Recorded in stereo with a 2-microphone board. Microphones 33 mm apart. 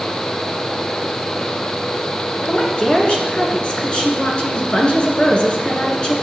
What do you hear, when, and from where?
2.5 s a woman speaking: 30° left (ahead or behind), 1.6 m